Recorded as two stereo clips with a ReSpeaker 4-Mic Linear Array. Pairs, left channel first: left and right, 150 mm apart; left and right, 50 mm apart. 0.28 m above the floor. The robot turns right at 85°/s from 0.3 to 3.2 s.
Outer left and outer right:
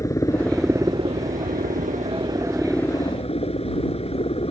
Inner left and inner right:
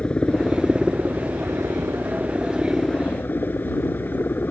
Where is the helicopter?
160° left; by 4.5 s 45° left.